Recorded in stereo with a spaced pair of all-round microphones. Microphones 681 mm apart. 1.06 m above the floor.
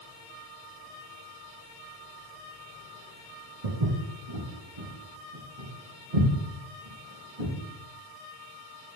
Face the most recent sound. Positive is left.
turn(degrees=-35)  # may be behind; listen again after turning